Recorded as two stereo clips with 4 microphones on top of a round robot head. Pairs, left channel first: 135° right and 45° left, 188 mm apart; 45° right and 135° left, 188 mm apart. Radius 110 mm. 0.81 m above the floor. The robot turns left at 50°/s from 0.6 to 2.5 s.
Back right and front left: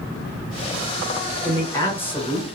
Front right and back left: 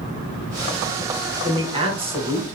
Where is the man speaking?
175° right, 1.0 m; by 2.6 s 135° left, 1.0 m.